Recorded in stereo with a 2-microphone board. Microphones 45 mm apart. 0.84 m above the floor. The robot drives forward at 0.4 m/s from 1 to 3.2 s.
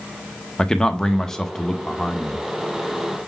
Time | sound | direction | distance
0.6 | a man speaking | 15° left (ahead or behind) | 0.6 m